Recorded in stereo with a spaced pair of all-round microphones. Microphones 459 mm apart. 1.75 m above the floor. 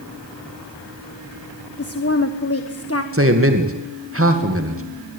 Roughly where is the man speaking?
Right.